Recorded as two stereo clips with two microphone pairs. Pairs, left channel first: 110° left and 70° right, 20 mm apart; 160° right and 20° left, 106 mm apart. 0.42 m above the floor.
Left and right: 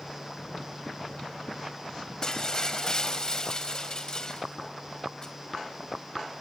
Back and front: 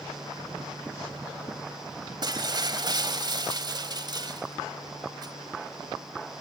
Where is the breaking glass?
65° left, 1.3 m.